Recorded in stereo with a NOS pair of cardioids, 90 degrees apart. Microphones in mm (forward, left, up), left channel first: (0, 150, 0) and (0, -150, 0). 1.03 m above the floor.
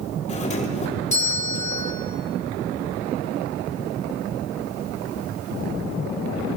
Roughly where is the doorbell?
Ahead left.